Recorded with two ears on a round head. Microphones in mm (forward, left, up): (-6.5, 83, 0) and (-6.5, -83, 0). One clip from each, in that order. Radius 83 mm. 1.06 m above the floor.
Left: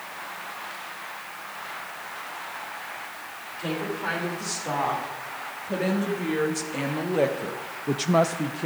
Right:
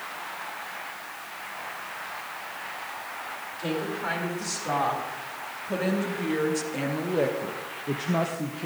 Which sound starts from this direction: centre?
A woman speaking, at 3.6 s.